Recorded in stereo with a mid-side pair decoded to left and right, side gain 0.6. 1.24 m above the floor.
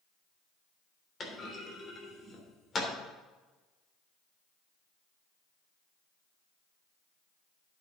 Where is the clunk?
30° left, 3 m.